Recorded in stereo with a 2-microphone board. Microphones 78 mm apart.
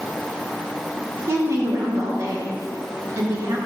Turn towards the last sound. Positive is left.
turn(degrees=-40)  # may be behind; listen again after turning